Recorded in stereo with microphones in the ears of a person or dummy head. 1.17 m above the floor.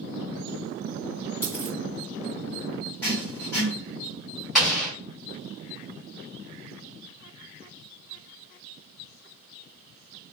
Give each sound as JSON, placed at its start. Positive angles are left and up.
{"t": 1.4, "sound": "a dropped coin", "side_deg": 15, "distance_m": 1.1}
{"t": 3.0, "sound": "writing", "side_deg": 5, "distance_m": 1.3}
{"t": 4.5, "sound": "an explosion", "side_deg": 0, "distance_m": 1.3}